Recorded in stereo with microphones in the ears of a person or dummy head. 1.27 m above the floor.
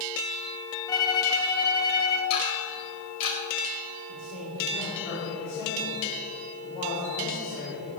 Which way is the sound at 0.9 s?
20° left (ahead or behind).